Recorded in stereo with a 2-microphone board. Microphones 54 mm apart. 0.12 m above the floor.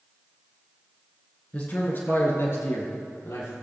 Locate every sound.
1.5 s a man speaking: 30° left (ahead or behind), 1.5 m; by 3.5 s 60° left (ahead or behind), 2.5 m